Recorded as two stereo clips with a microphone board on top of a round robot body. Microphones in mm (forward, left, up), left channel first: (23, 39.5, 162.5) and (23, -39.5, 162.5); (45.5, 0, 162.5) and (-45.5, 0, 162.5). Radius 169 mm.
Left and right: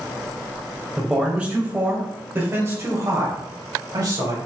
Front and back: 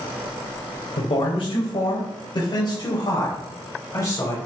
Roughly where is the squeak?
I don't hear a squeak.